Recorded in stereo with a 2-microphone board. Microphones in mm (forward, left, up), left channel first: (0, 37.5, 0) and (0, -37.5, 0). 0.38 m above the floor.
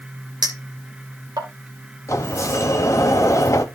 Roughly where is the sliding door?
Left.